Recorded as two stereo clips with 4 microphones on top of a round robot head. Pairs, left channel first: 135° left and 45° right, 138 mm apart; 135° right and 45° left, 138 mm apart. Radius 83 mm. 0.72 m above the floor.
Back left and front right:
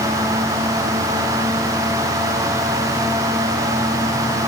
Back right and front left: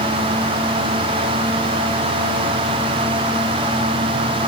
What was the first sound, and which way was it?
Only background noise.